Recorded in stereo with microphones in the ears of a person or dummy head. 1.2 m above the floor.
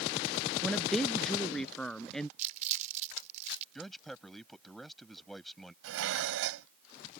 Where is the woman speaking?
Centre (ahead or behind).